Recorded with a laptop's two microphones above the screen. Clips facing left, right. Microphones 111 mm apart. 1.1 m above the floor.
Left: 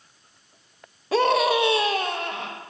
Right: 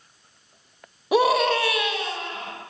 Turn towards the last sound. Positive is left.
turn(degrees=65)  # may be behind; listen again after turning